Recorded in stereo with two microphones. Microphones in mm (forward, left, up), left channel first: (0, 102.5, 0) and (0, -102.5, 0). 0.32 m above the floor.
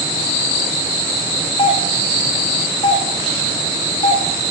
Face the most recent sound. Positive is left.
turn(degrees=25)  # may be behind; listen again after turning